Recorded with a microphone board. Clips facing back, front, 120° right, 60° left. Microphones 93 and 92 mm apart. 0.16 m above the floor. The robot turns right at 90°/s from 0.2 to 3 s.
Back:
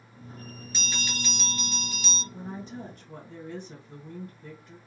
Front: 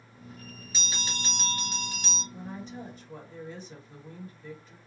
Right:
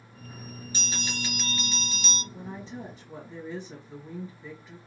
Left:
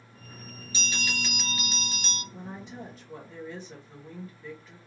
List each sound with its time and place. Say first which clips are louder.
0.7 s a bell: back 2 dB, left 2 dB; 85° right, 2 m; by 2.2 s 50° left, 2 m
2.3 s a woman speaking: back 1 dB, right 2 dB; 100° left, 2.5 m; by 4.8 s 160° left, 2.5 m